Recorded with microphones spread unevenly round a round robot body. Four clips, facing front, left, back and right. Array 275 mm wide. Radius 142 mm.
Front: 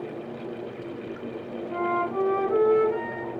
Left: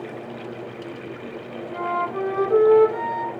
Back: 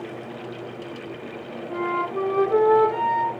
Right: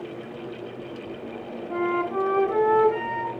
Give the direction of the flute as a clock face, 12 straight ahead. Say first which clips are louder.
Even, back 1 dB; 4 o'clock.